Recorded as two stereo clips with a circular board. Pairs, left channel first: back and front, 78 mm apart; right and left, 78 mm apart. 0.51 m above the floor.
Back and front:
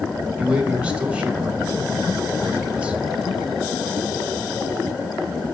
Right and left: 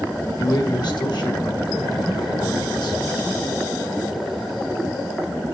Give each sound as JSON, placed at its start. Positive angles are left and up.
{"t": 0.4, "sound": "a man speaking", "azimuth_deg": -75, "distance_m": 2.5}